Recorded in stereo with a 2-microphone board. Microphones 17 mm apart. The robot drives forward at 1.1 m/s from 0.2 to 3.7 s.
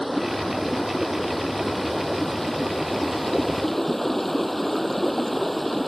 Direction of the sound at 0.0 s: 10° left (ahead or behind).